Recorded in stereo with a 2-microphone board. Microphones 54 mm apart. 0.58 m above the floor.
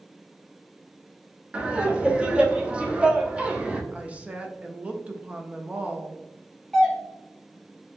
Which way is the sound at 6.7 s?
Centre (ahead or behind).